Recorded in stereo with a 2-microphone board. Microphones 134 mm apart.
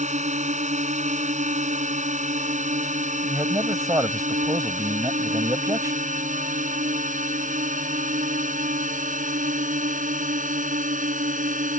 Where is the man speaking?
25° right (ahead or behind).